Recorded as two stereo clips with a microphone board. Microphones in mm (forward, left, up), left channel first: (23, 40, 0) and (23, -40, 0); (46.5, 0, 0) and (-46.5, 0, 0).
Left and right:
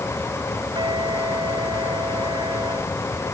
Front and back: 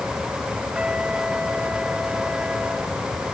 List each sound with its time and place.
0.8 s a trumpet: 100° right